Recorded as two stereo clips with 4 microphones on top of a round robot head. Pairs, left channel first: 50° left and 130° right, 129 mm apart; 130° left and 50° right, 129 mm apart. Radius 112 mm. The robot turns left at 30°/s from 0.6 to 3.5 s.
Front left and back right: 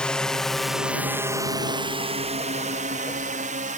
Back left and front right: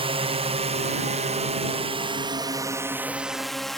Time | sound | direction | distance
0.0 | a drone | 30° right | ?